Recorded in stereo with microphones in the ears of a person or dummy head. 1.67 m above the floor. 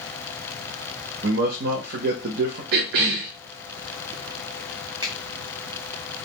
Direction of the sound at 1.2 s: 60° right (ahead or behind).